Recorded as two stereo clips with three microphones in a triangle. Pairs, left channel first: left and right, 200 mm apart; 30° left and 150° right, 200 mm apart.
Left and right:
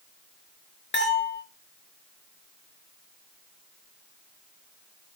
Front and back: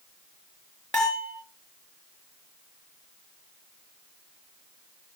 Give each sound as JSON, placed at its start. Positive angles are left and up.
{"t": 0.9, "sound": "a bell", "azimuth_deg": 115, "distance_m": 5.0}